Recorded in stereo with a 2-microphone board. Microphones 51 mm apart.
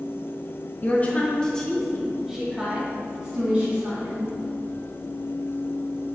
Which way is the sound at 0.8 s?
35° left (ahead or behind).